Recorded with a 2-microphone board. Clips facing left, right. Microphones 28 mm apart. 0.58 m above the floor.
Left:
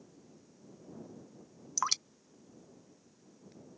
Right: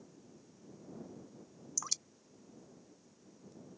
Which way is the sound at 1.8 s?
45° left (ahead or behind).